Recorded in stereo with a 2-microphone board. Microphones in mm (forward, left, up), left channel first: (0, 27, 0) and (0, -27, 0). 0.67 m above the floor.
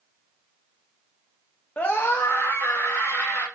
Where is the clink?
I don't hear a clink.